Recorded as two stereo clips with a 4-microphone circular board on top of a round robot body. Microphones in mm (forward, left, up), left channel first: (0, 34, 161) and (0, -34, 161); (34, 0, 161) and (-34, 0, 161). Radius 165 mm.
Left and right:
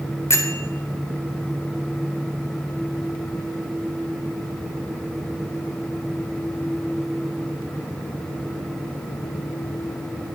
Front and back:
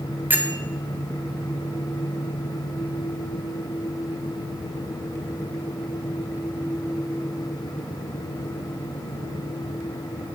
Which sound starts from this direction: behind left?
A bell, at 0.3 s.